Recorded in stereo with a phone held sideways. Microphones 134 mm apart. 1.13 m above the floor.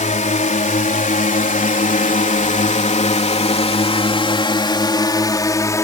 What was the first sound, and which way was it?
A drone, 60° left (ahead or behind).